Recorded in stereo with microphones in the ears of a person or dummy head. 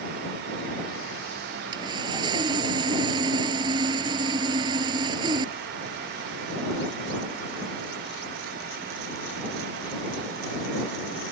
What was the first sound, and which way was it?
Sawing, 25° right (ahead or behind).